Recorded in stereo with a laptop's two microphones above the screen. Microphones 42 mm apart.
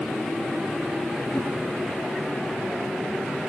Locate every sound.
1.3 s a whoosh: 60° left (ahead or behind), 1.4 m